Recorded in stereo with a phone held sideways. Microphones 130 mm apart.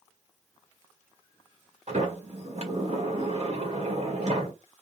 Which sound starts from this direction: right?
A sliding door, at 1.9 s.